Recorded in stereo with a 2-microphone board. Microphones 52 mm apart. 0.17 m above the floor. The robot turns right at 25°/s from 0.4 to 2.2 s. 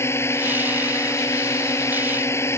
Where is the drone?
65° left; by 2.6 s 110° left.